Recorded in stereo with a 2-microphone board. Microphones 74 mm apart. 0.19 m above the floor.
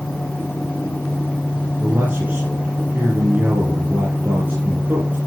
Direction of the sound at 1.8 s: 25° right (ahead or behind).